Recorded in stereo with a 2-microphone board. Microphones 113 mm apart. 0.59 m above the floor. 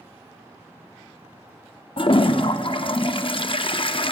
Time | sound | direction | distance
2.0 | a toilet flushing | 55° left (ahead or behind) | 0.5 m